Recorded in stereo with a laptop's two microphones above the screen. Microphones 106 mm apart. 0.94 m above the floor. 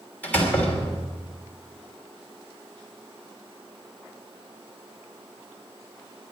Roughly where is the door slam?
Centre.